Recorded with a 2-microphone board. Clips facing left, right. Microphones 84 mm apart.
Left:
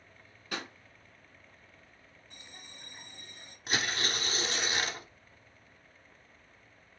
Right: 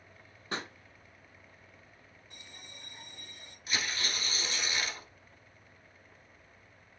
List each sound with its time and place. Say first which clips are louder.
0.5 s a pop: right 1 dB; 30° right (ahead or behind), 0.9 m
2.3 s a bell: even; 30° left (ahead or behind), 2 m
3.7 s tearing paper: left 3 dB; 55° left (ahead or behind), 0.6 m